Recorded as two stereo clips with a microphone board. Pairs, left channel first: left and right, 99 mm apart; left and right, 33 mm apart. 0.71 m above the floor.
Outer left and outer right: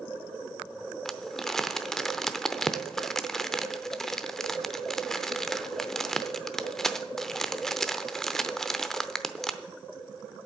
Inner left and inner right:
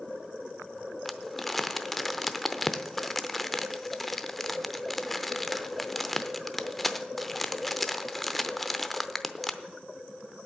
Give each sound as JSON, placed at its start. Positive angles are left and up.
{"t": 1.1, "sound": "crumpling", "side_deg": 5, "distance_m": 0.7}